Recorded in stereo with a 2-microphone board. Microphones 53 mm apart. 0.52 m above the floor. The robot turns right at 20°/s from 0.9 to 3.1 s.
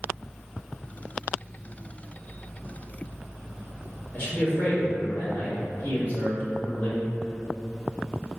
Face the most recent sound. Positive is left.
turn(degrees=30)  # may be behind; listen again after turning